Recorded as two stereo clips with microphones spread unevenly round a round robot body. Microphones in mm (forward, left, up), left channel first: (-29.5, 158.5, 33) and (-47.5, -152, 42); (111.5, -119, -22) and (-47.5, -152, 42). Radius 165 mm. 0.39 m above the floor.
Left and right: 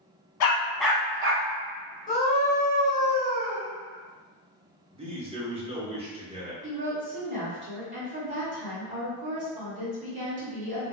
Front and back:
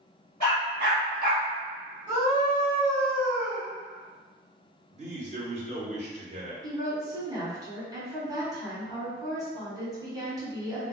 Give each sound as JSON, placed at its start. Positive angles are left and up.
{"t": 0.4, "sound": "a dog barking", "azimuth_deg": 130, "distance_m": 0.8}
{"t": 2.1, "sound": "a scream", "azimuth_deg": 135, "distance_m": 1.6}
{"t": 4.9, "sound": "a man speaking", "azimuth_deg": -135, "distance_m": 0.9}
{"t": 6.6, "sound": "a woman speaking", "azimuth_deg": -85, "distance_m": 1.6}